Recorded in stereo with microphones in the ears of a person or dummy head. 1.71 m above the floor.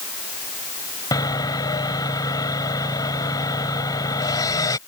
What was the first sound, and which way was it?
Sawing, 20° left (ahead or behind).